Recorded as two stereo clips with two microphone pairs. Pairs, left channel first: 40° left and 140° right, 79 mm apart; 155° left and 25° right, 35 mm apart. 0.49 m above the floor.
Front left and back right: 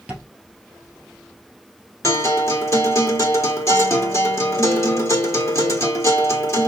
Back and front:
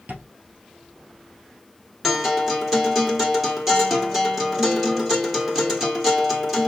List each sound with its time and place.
0.1 s tapping: 60° right, 3 m
2.0 s a guitar: 45° left, 1.5 m